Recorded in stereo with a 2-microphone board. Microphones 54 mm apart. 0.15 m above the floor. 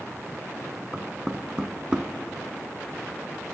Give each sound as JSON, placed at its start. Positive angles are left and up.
{"t": 0.9, "sound": "knocking", "side_deg": -15, "distance_m": 0.8}